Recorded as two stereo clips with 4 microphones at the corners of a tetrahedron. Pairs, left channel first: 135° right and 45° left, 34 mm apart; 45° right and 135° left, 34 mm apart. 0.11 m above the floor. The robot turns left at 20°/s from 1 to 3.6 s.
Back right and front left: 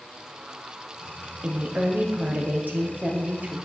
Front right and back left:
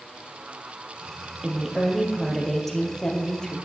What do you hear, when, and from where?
1.4 s a woman speaking: 65° left, 2 m; by 3.6 s 20° left, 2 m